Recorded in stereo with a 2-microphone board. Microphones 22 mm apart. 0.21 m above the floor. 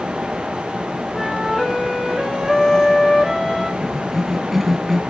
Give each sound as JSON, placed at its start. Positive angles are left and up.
{"t": 1.1, "sound": "a flute", "side_deg": 10, "distance_m": 4.5}
{"t": 3.8, "sound": "a cough", "side_deg": -5, "distance_m": 2.0}